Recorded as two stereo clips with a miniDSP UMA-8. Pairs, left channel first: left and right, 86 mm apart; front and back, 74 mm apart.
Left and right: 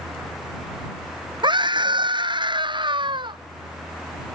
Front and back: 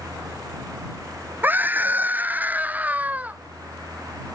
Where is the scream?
115° right; by 3.4 s 110° right.